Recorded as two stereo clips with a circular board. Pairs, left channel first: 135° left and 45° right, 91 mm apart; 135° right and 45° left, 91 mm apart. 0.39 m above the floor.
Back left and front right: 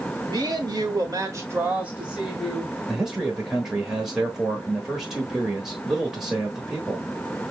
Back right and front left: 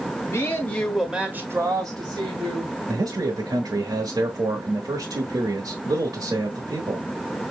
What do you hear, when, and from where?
0.3 s a woman speaking: 80° right, 1.7 m; by 2.8 s 45° left, 2 m
2.9 s a man speaking: 35° left, 1.1 m